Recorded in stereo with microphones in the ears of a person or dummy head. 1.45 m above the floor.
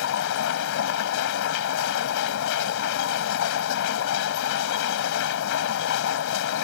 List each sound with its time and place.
0.0 s a machine running: 65° left (ahead or behind)